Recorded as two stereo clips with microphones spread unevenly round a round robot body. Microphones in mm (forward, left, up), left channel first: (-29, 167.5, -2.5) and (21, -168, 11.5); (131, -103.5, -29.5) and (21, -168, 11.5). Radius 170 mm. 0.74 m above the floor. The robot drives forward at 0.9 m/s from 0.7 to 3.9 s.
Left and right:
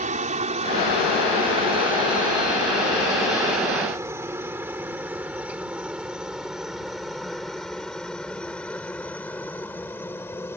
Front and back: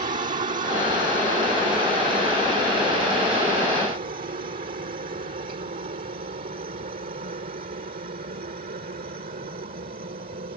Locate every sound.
0.0 s a helicopter: 145° right; by 10.6 s straight behind